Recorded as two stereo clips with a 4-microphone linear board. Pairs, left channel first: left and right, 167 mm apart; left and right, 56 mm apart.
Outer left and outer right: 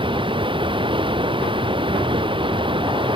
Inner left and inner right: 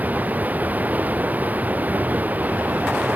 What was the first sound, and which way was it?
Running water, 30° right (ahead or behind).